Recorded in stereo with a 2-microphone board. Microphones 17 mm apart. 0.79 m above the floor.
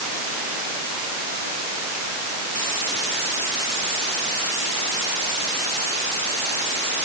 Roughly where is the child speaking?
No child speaking in this recording.